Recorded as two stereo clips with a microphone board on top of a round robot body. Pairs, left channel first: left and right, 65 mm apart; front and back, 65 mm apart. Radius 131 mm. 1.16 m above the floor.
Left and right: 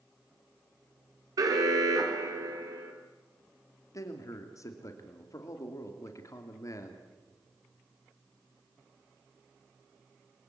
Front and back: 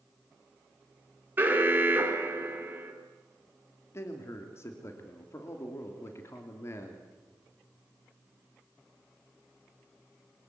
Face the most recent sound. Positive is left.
turn(degrees=55)